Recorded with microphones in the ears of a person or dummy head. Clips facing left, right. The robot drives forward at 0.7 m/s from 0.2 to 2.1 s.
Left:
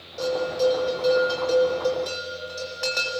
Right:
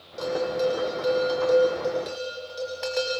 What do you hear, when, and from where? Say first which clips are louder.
0.2 s a bell: left 2 dB; 5° right (ahead or behind), 4 m